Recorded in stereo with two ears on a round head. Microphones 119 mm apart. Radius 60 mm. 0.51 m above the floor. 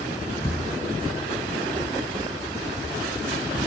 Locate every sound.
0.4 s a thud: 25° left (ahead or behind), 4 m